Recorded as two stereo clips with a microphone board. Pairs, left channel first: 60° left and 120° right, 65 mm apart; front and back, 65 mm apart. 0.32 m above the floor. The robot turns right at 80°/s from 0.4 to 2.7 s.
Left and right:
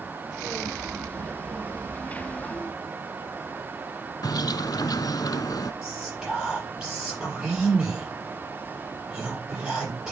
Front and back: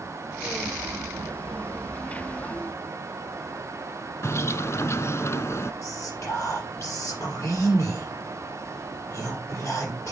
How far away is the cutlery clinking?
I don't hear cutlery clinking.